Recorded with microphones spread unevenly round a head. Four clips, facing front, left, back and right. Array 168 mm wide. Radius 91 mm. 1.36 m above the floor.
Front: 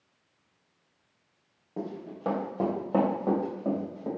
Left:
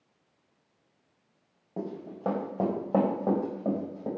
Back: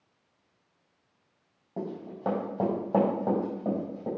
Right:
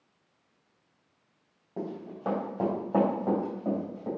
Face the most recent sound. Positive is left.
turn(degrees=85)